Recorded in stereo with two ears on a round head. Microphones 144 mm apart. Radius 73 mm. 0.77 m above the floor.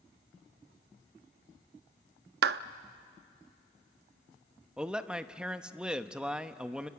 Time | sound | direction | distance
2.4 | a clap | 75° right (ahead or behind) | 0.6 m
4.8 | a man speaking | 5° right (ahead or behind) | 0.8 m